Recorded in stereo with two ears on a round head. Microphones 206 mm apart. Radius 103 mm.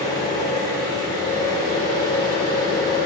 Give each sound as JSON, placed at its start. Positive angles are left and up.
{"t": 0.0, "sound": "an engine running", "side_deg": 15, "distance_m": 3.0}